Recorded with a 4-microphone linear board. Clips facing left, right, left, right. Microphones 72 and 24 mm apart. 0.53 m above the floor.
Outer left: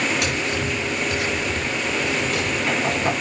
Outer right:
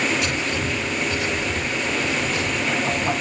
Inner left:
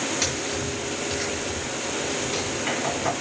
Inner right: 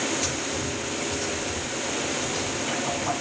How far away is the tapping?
About 6.5 m.